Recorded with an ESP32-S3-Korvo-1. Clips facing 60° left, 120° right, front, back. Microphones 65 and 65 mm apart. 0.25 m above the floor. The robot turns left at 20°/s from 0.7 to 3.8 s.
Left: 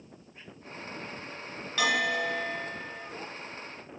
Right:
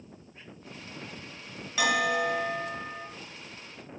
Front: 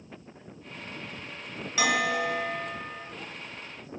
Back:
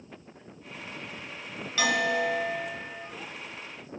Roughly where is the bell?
Ahead right.